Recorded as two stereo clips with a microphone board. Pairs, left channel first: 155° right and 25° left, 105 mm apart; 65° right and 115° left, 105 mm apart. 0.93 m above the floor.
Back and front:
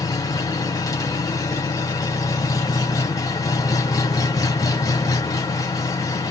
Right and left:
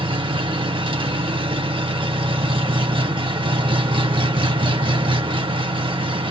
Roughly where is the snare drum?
I don't hear a snare drum.